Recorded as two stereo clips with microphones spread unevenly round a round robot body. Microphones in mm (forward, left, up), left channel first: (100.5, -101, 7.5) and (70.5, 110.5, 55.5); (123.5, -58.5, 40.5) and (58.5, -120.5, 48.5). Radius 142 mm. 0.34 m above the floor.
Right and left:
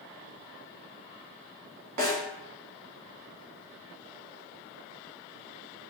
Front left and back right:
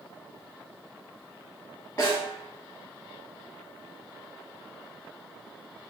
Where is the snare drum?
125° left, 0.8 m.